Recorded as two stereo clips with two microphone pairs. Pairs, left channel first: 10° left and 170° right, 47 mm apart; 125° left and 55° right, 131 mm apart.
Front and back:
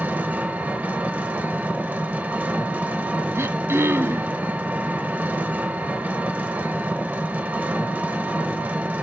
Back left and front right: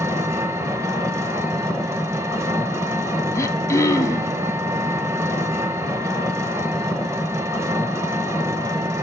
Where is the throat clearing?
170° right, 0.7 m.